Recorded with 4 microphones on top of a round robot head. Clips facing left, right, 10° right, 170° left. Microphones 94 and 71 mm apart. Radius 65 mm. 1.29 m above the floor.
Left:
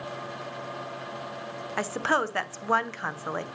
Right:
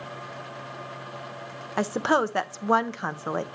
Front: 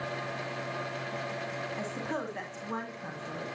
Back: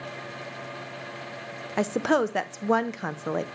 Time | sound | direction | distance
1.8 | a woman speaking | 160° right | 0.6 m